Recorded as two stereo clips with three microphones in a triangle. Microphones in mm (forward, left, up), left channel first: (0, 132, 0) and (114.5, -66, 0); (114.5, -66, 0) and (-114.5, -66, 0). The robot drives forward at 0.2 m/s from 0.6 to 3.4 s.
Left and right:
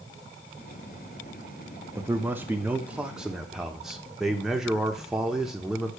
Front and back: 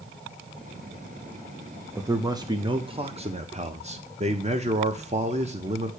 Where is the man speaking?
120° right, 0.9 m; by 5.9 s 145° right, 1.0 m.